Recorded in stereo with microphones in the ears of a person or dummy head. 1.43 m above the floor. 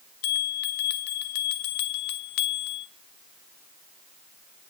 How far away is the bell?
About 0.7 m.